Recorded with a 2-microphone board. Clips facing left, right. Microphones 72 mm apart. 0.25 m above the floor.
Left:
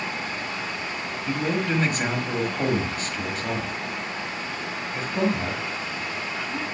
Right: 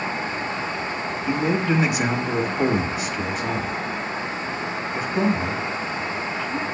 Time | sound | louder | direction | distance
1.3 | a man speaking | right 3 dB | 10° right (ahead or behind) | 1.3 m